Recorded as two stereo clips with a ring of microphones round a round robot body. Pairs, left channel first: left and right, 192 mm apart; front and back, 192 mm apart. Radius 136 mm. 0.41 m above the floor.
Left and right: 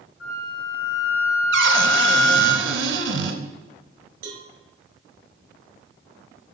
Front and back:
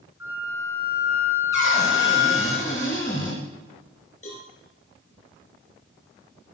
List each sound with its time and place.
0.2 s a flute: 100° left, 3.5 m
1.5 s a cupboard door: 80° right, 1.9 m
4.2 s a cowbell: 65° right, 2.5 m